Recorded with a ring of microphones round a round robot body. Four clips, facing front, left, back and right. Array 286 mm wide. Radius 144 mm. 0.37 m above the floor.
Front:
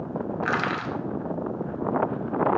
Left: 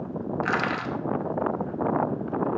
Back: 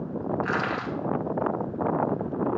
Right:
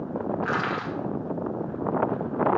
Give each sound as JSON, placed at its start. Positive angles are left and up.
{"t": 0.4, "sound": "crushing", "azimuth_deg": 50, "distance_m": 0.6}